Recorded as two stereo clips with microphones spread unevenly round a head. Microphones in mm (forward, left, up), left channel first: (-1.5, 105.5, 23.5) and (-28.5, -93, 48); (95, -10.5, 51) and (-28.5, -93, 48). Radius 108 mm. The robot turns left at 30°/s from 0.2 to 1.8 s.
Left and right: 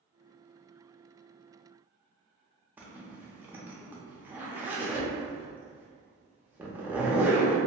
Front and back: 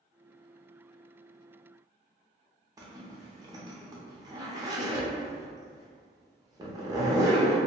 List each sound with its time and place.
2.8 s a zipper: 175° left, 0.7 m